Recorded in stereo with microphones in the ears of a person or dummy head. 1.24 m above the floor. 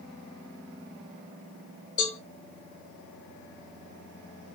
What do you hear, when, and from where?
2.0 s a cowbell: 20° left (ahead or behind), 1.1 m